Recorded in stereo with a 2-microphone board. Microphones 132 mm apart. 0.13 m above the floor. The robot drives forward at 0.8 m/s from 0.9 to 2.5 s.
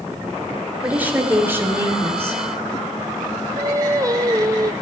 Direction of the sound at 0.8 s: 15° right (ahead or behind).